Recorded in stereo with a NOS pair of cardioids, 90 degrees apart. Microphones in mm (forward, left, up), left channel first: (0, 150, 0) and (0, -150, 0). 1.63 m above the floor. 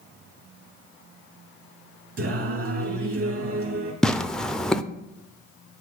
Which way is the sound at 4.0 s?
Straight ahead.